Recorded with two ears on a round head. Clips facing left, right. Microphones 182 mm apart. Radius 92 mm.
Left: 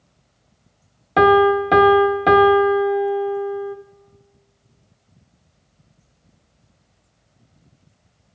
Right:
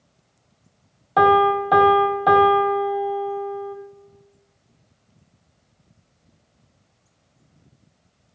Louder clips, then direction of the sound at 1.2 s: Left 4 dB; 30° left (ahead or behind).